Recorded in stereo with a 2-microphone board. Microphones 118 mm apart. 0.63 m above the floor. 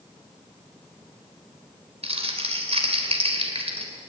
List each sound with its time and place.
2.0 s crumpling: 55° right (ahead or behind), 3 m